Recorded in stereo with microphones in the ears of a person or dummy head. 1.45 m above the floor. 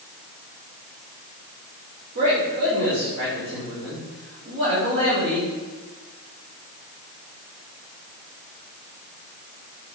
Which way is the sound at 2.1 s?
70° right (ahead or behind).